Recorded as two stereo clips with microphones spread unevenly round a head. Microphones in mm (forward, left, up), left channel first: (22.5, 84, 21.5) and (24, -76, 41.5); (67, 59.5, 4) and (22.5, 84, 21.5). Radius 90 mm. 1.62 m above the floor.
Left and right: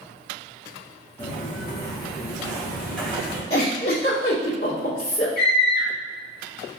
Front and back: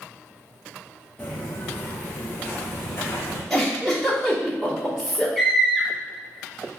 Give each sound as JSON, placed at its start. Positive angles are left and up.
{"t": 1.2, "sound": "footsteps", "azimuth_deg": 50, "distance_m": 2.0}
{"t": 3.5, "sound": "a giggle", "azimuth_deg": 75, "distance_m": 1.8}
{"t": 5.4, "sound": "a scream", "azimuth_deg": 60, "distance_m": 2.0}